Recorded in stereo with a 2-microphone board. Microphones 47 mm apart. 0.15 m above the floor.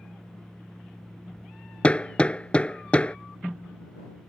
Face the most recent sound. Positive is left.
turn(degrees=25)  # may be behind; listen again after turning